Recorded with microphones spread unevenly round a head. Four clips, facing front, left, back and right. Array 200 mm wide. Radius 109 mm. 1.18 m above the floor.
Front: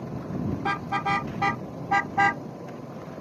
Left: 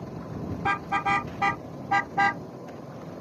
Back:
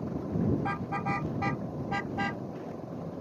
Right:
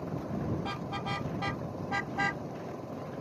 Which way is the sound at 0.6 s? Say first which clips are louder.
Left 10 dB, front 5 dB; 45° left.